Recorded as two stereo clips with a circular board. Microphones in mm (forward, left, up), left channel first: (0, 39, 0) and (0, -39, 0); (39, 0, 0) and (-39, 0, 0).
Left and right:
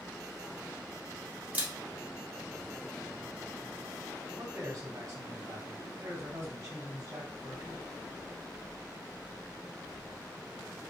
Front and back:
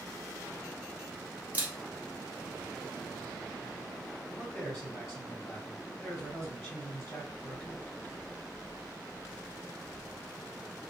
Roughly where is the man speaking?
Right.